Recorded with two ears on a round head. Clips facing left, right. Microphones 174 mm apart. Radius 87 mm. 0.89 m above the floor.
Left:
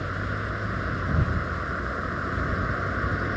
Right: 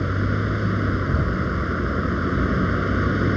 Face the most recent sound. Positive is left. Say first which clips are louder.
# right 8 dB
turn(degrees=-40)  # may be behind; listen again after turning